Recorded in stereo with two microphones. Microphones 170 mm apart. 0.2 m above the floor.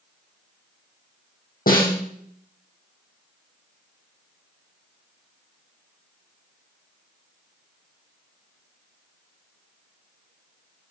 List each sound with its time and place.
1.7 s a snare drum: 70° left (ahead or behind), 3 m